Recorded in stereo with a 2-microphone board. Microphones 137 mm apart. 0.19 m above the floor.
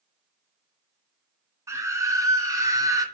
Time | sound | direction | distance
1.7 | a scream | 20° right (ahead or behind) | 2.5 m